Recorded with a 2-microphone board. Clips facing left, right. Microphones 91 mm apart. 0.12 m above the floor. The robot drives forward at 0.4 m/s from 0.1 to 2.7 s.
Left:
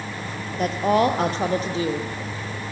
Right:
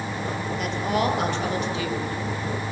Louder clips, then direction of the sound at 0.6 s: Left 6 dB; 40° left (ahead or behind).